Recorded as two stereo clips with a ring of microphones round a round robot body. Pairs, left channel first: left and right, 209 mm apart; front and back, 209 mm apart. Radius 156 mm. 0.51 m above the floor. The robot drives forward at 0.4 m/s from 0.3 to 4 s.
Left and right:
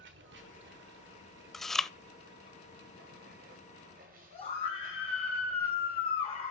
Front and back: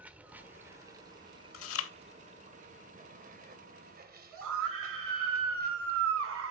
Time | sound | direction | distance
0.0 | running water | 100° right | 1.4 m
1.5 | chewing | straight ahead | 0.8 m
4.3 | a scream | 160° left | 4 m